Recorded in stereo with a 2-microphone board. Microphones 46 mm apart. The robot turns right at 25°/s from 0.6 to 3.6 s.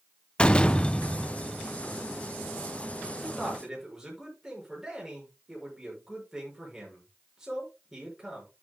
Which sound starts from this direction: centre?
A man speaking, at 3.2 s.